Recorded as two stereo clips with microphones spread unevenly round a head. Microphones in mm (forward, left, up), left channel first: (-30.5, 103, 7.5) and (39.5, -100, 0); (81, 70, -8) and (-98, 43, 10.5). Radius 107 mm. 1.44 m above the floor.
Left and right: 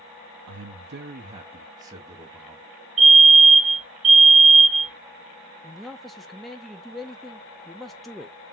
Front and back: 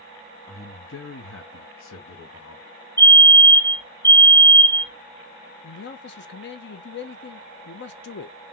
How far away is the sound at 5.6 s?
About 0.6 m.